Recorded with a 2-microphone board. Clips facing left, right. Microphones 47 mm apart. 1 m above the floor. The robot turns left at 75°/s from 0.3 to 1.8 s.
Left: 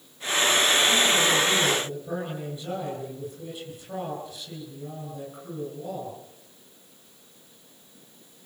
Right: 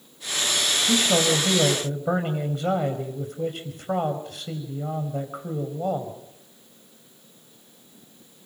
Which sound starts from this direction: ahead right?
A man speaking, at 0.9 s.